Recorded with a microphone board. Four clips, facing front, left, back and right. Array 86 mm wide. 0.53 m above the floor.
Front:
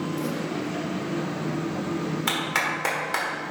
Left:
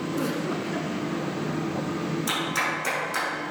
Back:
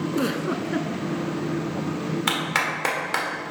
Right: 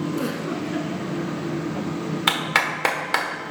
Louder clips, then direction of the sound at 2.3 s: Right 4 dB, back 2 dB; 100° right.